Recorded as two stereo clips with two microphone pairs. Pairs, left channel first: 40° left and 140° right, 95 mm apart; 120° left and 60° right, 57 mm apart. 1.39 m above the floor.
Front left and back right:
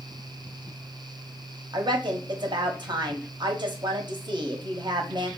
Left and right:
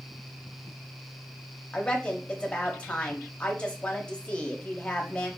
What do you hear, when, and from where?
1.7 s a woman speaking: 170° right, 0.7 m